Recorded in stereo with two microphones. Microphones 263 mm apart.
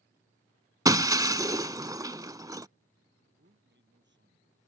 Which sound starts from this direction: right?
A man speaking, at 3.2 s.